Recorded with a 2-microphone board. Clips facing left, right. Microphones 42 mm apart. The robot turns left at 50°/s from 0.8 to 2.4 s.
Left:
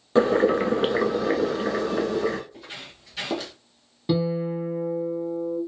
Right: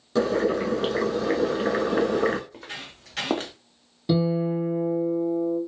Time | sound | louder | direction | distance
0.1 | boiling | left 3 dB | 30° left | 0.5 m
2.5 | footsteps | right 2 dB | 60° right (ahead or behind) | 1.6 m
4.1 | a guitar | right 1 dB | 10° left (ahead or behind) | 1.5 m